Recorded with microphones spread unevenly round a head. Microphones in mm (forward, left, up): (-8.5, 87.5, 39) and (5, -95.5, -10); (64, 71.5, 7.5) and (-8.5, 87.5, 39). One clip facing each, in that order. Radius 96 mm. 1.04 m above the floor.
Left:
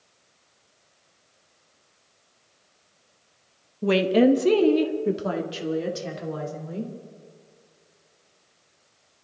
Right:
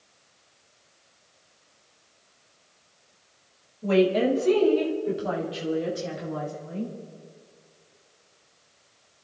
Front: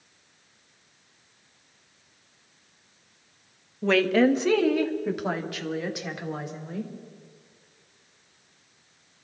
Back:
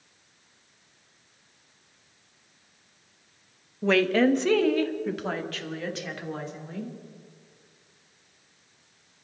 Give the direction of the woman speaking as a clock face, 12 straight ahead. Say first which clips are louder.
Left 3 dB, front 1 dB; 9 o'clock.